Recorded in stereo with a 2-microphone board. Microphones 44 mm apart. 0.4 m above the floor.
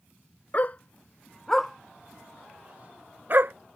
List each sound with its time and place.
0.5 s a dog barking: 40° left (ahead or behind); by 3.5 s 50° right (ahead or behind)